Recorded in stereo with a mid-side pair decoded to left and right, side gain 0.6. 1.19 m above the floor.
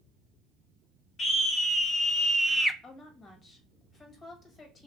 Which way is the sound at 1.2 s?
35° left.